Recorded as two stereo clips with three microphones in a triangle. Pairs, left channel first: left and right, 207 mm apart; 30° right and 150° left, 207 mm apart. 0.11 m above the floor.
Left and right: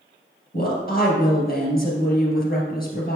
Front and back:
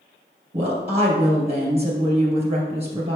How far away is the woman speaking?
About 2.5 m.